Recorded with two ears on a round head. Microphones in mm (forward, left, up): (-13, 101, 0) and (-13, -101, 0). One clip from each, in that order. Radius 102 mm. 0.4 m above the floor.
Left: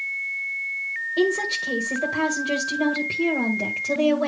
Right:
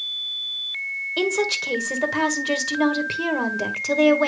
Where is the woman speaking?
45° right (ahead or behind), 1.5 m.